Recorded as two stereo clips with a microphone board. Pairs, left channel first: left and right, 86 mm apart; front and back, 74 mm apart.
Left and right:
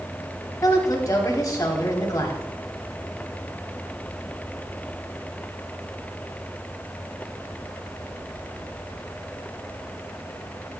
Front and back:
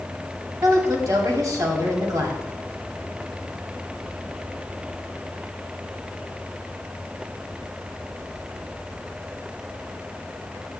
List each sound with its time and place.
0.6 s a woman speaking: 145° left, 3 m